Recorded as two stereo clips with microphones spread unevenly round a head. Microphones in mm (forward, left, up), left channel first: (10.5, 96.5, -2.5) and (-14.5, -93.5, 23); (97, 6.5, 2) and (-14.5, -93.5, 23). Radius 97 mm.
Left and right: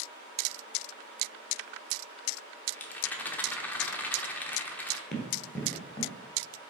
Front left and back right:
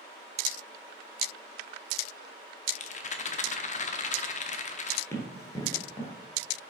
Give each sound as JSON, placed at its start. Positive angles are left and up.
{"t": 2.7, "sound": "a rattle", "azimuth_deg": 0, "distance_m": 0.7}
{"t": 5.1, "sound": "running footsteps", "azimuth_deg": -25, "distance_m": 1.6}